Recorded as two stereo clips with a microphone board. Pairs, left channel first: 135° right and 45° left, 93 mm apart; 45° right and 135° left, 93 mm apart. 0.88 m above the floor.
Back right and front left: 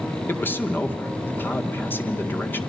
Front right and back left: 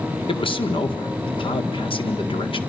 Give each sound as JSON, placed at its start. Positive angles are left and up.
{"t": 0.3, "sound": "a man speaking", "azimuth_deg": -65, "distance_m": 1.6}